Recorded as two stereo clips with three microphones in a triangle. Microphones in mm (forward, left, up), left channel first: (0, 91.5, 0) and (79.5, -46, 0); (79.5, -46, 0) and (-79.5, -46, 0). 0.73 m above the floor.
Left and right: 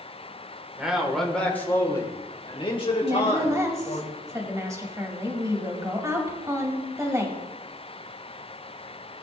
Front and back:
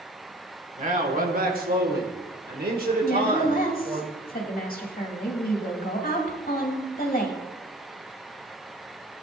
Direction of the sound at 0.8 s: 145° right.